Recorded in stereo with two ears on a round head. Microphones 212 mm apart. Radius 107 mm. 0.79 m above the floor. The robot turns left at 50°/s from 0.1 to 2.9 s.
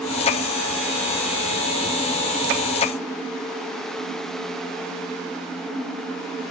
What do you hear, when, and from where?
Only background noise.